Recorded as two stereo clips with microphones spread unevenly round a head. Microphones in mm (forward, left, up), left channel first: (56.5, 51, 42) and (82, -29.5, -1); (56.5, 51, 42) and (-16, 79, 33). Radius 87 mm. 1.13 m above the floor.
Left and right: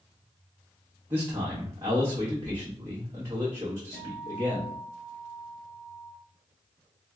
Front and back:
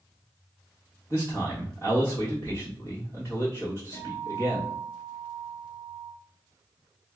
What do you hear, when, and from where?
1.1 s a man speaking: 135° right, 1.3 m
3.9 s a guitar: 150° right, 1.5 m